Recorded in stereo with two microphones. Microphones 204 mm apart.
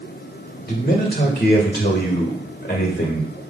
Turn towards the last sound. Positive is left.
turn(degrees=55)  # may be behind; listen again after turning